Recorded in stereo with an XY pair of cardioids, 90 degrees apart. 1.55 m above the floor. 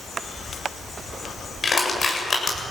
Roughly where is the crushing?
Ahead left.